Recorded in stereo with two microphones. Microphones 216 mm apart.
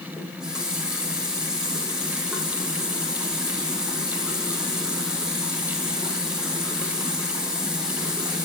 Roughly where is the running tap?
Centre.